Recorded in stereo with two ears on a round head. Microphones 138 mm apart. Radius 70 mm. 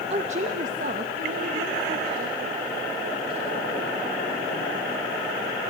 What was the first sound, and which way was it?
A woman speaking, 45° right (ahead or behind).